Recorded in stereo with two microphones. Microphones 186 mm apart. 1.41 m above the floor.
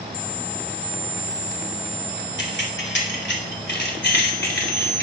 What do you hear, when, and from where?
2.4 s keys jangling: 80° left, 3 m; by 5.0 s 60° left (ahead or behind), 4.5 m